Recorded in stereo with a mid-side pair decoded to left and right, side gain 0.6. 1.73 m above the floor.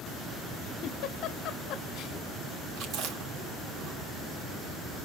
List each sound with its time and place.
0.8 s a giggle: 60° left, 0.7 m
2.8 s chewing: 65° right, 3 m